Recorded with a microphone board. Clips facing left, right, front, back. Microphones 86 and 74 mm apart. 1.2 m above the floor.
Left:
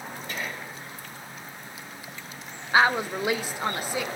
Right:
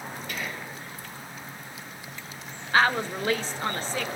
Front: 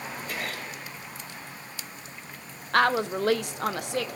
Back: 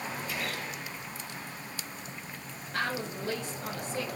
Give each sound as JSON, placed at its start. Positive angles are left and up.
{"t": 0.3, "sound": "whispering", "azimuth_deg": 35, "distance_m": 2.5}
{"t": 2.7, "sound": "a woman speaking", "azimuth_deg": 15, "distance_m": 0.6}